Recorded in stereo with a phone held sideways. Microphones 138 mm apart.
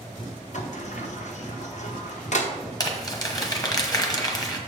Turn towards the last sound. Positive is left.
turn(degrees=25)  # may be behind; listen again after turning